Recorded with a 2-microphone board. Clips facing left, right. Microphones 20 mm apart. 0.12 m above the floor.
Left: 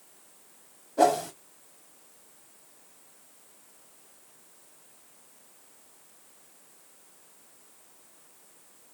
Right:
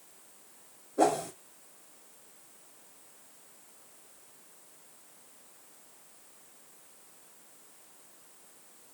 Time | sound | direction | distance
1.0 | a whoosh | 75° left (ahead or behind) | 1.8 m